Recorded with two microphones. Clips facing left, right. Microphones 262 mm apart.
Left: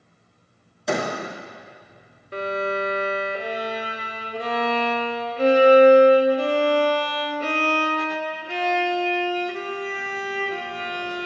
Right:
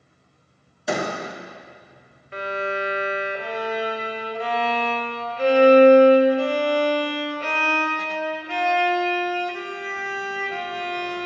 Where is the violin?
45° left (ahead or behind), 0.8 m.